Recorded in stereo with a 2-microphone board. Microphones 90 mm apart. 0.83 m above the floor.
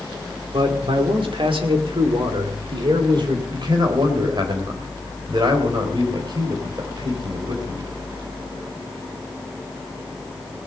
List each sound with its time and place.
0.5 s a man speaking: 75° right (ahead or behind), 2.5 m; by 3.4 s 55° right (ahead or behind), 3 m
3.5 s a man speaking: 55° right (ahead or behind), 3.5 m